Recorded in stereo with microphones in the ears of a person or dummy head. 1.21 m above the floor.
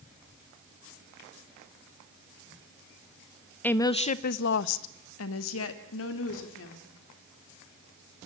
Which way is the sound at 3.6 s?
5° left (ahead or behind).